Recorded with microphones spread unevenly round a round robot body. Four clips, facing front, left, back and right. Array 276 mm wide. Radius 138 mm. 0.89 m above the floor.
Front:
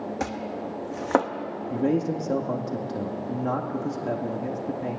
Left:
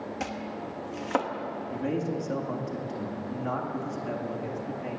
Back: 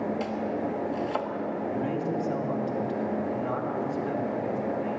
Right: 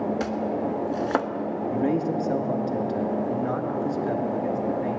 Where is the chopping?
20° right, 1.1 m.